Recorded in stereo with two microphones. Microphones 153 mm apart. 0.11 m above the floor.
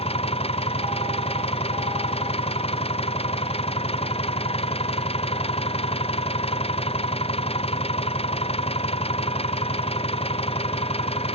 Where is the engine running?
40° left (ahead or behind).